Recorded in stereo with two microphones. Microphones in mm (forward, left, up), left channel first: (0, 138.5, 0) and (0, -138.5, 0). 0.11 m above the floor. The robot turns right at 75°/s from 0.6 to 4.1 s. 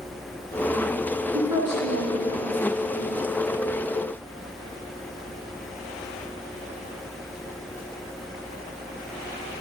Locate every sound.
1.3 s a woman speaking: 60° right (ahead or behind), 5.5 m; by 2.6 s 20° right (ahead or behind), 5.5 m